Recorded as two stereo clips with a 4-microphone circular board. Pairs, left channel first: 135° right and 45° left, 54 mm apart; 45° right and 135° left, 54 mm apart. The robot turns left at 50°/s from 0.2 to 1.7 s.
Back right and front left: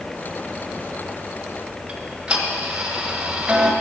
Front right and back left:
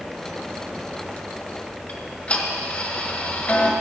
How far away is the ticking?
About 1.7 m.